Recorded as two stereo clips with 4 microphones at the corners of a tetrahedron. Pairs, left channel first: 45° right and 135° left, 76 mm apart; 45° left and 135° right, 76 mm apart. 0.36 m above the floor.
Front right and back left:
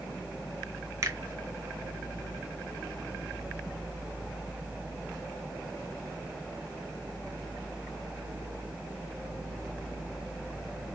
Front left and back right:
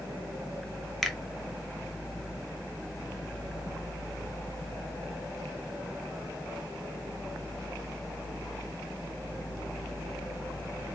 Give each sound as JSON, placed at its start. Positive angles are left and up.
{"t": 1.0, "sound": "a finger snap", "azimuth_deg": 130, "distance_m": 0.9}